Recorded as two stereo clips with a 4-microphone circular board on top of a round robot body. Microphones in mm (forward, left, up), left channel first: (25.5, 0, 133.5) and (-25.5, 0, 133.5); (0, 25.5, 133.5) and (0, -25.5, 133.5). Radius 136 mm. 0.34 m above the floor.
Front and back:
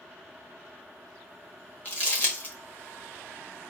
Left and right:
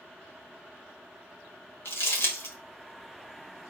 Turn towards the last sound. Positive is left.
turn(degrees=60)